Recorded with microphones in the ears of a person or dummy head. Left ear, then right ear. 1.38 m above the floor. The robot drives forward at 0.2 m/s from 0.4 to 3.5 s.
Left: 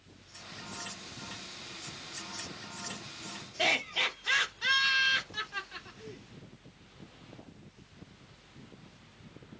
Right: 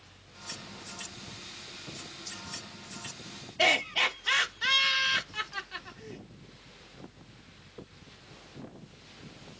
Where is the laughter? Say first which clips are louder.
Right 4 dB; 15° right (ahead or behind), 0.6 m.